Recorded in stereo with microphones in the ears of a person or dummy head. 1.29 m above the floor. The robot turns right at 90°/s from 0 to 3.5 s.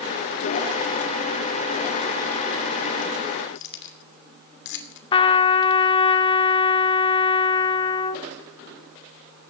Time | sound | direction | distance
3.5 | keys jangling | 70° left (ahead or behind) | 2.5 m
5.1 | a trumpet | 30° left (ahead or behind) | 0.8 m